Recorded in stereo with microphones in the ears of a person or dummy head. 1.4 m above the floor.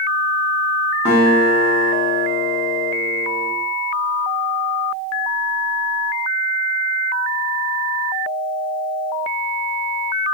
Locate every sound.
1.1 s a guitar: 5° right (ahead or behind), 1.5 m